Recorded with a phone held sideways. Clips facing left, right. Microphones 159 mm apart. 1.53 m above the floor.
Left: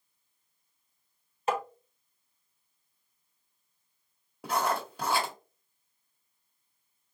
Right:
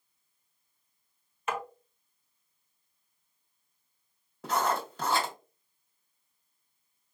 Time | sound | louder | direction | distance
1.5 | tapping | left 4 dB | 35° left (ahead or behind) | 1.2 m
4.4 | writing | even | 10° left (ahead or behind) | 1.7 m